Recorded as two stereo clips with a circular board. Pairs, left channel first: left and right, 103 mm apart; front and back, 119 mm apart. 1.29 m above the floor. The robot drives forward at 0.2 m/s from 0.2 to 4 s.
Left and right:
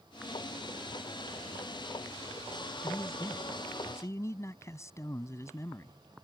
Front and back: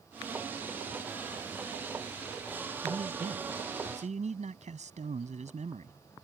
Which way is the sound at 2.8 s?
155° left.